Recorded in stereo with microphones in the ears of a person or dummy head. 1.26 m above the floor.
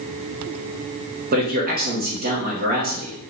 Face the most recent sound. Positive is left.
turn(degrees=-40)  # may be behind; listen again after turning